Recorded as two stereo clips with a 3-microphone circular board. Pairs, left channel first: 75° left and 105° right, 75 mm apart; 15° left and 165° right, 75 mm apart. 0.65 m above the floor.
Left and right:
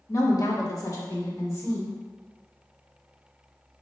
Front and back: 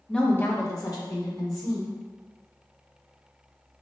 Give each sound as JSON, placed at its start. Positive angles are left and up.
{"t": 0.1, "sound": "a woman speaking", "azimuth_deg": 95, "distance_m": 0.9}